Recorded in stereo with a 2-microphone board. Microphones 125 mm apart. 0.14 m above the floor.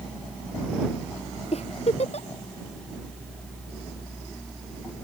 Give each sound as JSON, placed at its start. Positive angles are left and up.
{"t": 1.5, "sound": "a giggle", "side_deg": 55}